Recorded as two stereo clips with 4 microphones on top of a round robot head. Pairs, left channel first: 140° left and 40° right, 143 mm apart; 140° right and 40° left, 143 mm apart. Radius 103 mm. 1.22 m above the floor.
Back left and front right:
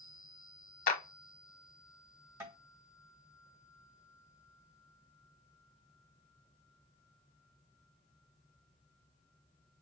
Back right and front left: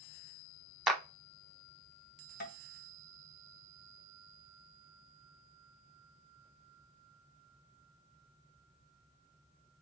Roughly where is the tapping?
Right.